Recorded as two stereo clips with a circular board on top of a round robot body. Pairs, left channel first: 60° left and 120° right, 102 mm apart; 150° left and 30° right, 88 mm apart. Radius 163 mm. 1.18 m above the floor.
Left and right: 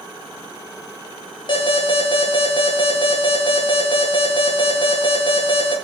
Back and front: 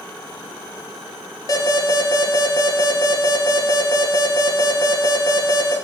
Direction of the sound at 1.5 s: 100° left.